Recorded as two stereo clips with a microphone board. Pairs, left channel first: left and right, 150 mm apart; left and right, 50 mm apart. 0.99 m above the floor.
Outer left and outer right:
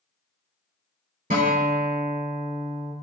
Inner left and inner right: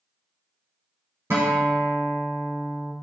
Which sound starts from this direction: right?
A guitar, at 1.3 s.